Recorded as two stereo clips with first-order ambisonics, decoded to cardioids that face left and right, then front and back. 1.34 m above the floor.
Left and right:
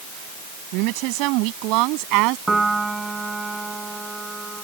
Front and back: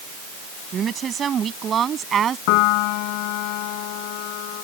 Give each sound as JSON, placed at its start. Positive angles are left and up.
{"t": 0.7, "sound": "a woman speaking", "azimuth_deg": -115}
{"t": 2.5, "sound": "a piano", "azimuth_deg": -10}